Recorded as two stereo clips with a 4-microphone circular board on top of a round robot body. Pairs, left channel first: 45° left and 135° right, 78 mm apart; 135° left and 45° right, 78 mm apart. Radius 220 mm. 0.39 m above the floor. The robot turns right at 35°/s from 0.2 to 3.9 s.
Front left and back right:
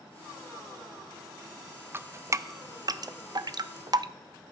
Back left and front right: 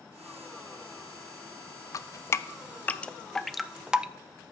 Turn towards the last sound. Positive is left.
turn(degrees=-120)